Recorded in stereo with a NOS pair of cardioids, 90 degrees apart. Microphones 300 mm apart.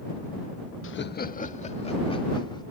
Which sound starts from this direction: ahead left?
Laughter, at 0.8 s.